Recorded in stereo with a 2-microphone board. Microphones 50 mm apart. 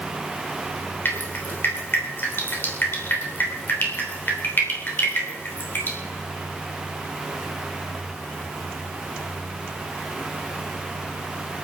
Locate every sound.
1.1 s dripping: 40° left (ahead or behind), 3.5 m